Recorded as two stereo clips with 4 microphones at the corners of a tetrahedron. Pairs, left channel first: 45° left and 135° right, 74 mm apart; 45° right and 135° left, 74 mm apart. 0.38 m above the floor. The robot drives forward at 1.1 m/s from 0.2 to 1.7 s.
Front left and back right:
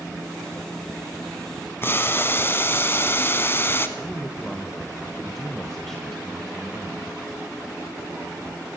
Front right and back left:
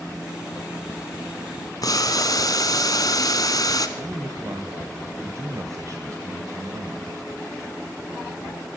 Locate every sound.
1.8 s boiling: 15° right, 1.0 m
4.0 s a man speaking: 130° left, 1.2 m